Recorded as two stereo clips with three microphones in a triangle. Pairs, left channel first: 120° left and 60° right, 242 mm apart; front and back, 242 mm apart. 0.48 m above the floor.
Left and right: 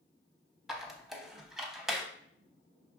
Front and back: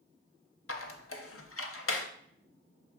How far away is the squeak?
About 0.5 m.